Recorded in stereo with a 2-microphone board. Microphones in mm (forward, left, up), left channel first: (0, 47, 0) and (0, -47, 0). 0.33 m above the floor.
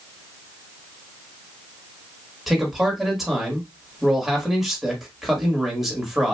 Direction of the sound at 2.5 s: 5° right (ahead or behind).